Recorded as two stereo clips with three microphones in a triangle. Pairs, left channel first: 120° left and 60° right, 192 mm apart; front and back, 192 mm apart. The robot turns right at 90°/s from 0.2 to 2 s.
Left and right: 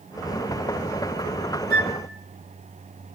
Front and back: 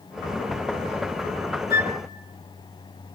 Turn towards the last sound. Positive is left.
turn(degrees=0)